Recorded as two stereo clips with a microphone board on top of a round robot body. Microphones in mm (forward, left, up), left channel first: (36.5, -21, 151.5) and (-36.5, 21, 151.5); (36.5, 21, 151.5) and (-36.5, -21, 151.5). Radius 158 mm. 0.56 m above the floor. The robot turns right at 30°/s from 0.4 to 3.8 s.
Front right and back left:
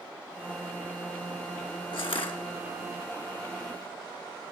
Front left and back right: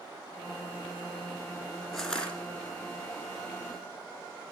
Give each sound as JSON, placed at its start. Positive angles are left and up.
{"t": 1.9, "sound": "crushing", "azimuth_deg": -60, "distance_m": 2.5}